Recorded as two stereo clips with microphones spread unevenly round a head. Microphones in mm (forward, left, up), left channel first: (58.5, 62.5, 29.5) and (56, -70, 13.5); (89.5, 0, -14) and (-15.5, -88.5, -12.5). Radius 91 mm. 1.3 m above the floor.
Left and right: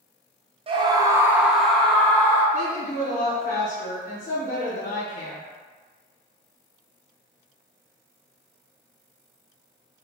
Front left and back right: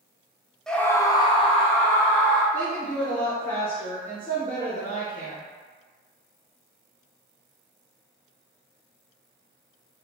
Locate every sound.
0.7 s a scream: 45° right, 0.7 m; by 2.4 s 15° left, 1.1 m
2.5 s a woman speaking: 120° left, 0.8 m